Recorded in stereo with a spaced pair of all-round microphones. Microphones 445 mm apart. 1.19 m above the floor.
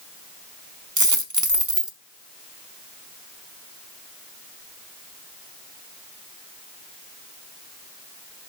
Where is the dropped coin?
40° right (ahead or behind), 1.2 m.